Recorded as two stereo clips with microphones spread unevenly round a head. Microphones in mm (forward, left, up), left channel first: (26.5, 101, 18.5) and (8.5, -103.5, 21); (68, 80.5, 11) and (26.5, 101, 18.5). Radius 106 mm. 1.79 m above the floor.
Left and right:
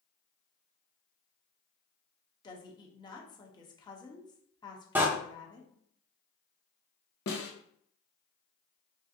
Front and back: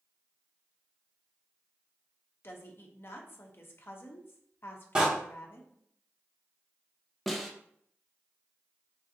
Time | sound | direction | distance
2.4 | a woman speaking | 15° left | 1.0 m
5.0 | a door slam | 170° right | 0.7 m
7.3 | a snare drum | 70° left | 0.9 m